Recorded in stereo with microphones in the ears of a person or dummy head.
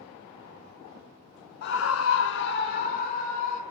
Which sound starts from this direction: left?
A scream, at 1.6 s.